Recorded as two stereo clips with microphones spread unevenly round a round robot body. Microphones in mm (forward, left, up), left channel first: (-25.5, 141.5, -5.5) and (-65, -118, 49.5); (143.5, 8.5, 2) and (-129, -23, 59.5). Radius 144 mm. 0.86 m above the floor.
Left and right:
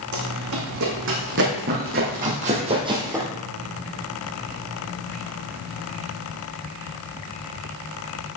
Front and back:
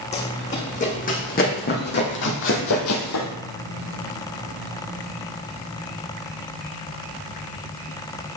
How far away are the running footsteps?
About 3 m.